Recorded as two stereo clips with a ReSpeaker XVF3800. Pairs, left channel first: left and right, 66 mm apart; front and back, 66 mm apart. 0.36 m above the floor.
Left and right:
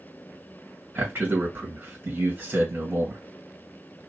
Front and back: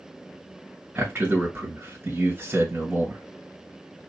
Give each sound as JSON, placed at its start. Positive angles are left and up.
{"t": 0.9, "sound": "a man speaking", "azimuth_deg": -135, "distance_m": 1.9}